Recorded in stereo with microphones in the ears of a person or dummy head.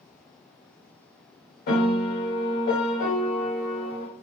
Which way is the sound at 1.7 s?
50° left (ahead or behind).